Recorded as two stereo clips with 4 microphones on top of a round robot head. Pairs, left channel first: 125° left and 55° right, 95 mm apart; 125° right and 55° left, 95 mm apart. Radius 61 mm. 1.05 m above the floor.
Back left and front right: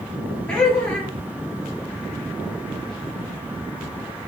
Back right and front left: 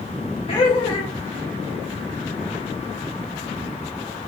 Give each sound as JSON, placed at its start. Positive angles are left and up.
{"t": 0.5, "sound": "laughter", "azimuth_deg": -155, "distance_m": 1.8}